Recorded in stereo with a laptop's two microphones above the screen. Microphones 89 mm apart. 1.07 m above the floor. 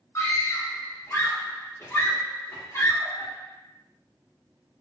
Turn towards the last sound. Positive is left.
turn(degrees=35)  # may be behind; listen again after turning